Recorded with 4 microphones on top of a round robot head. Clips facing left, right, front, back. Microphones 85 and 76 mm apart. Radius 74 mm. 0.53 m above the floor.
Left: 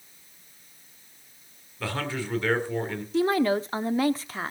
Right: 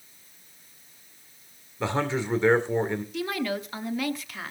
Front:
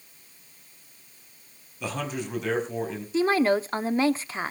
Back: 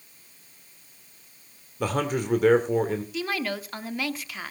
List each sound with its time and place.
1.8 s a man speaking: 155° right, 2.5 m
3.1 s a woman speaking: 45° left, 1.0 m